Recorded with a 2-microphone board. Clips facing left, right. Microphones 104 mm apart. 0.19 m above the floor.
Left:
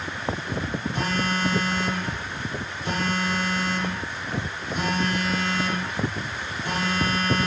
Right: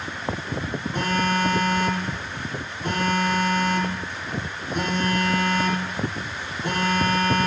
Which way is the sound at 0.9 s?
45° right (ahead or behind).